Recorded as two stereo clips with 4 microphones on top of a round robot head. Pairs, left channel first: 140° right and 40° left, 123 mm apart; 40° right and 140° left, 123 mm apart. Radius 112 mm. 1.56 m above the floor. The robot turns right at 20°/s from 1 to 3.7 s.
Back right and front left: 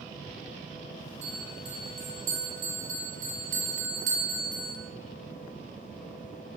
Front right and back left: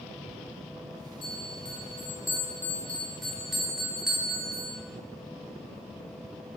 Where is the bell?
5° left, 3 m; by 4.8 s 55° left, 3 m.